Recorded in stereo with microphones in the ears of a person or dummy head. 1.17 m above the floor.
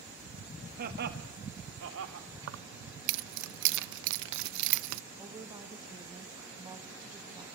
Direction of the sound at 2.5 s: 65° right (ahead or behind).